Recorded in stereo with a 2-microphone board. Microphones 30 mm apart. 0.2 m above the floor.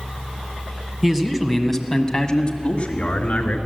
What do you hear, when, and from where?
1.0 s a man speaking: 15° right (ahead or behind), 1.4 m; by 3.6 s 50° left (ahead or behind), 1.8 m